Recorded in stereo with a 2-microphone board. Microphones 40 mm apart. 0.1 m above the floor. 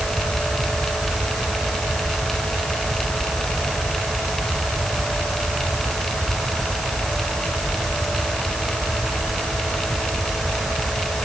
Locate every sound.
Only background noise.